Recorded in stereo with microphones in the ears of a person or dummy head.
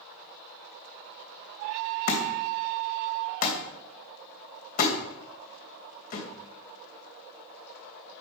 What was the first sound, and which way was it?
A thud, 45° left (ahead or behind).